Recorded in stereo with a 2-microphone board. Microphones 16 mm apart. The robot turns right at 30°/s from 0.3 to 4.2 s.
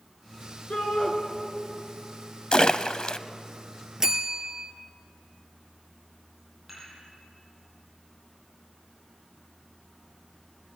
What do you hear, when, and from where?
0.7 s a shout: 65° left (ahead or behind), 4.5 m; by 1.1 s 70° left (ahead or behind), 4.5 m
2.5 s a splash: 55° left (ahead or behind), 0.6 m; by 3.2 s 50° left (ahead or behind), 0.6 m
4.0 s a bell: 20° right (ahead or behind), 1.1 m; by 4.7 s 30° right (ahead or behind), 1.1 m
6.7 s dishes clattering: 5° right (ahead or behind), 6.5 m